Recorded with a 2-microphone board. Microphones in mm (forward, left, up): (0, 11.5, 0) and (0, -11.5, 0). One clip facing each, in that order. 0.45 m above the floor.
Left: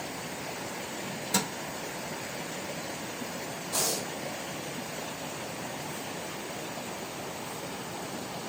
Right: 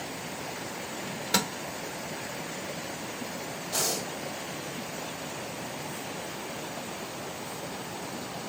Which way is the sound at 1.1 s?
45° right (ahead or behind).